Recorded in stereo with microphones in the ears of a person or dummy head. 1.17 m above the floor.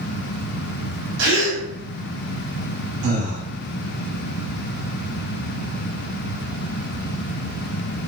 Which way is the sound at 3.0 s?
80° right.